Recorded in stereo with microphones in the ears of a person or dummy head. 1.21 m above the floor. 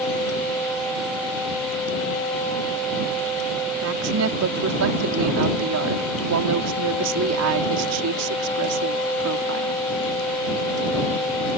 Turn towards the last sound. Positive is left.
turn(degrees=-85)